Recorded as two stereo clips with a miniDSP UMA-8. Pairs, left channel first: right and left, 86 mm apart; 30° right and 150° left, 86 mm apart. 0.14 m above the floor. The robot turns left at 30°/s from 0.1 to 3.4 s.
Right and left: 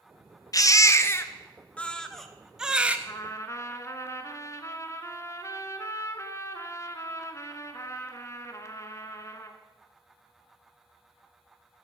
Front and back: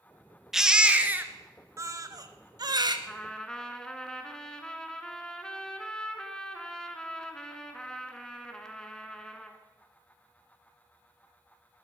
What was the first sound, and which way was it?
A baby crying, 125° right.